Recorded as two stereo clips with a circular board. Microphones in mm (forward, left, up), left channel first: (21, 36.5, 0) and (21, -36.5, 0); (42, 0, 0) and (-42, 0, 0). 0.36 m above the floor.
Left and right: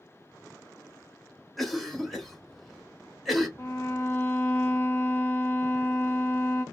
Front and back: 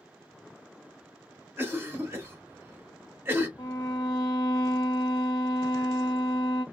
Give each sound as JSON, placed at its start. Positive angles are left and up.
{"t": 1.6, "sound": "a cough", "azimuth_deg": 175, "distance_m": 0.9}
{"t": 3.6, "sound": "a violin", "azimuth_deg": 35, "distance_m": 0.8}